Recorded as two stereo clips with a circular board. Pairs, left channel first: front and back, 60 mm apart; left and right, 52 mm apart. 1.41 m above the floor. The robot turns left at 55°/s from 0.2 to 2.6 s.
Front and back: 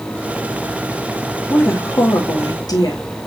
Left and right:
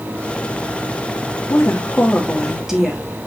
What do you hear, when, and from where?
1.5 s a woman speaking: 55° left, 2.5 m; by 3.0 s 5° right, 2.5 m